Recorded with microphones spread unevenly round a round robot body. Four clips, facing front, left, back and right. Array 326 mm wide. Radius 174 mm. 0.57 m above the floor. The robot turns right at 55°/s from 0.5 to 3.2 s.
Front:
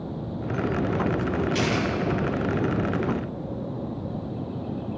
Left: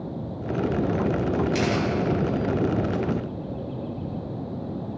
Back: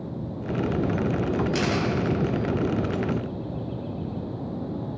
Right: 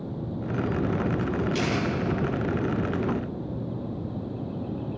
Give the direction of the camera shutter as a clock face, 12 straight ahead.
8 o'clock.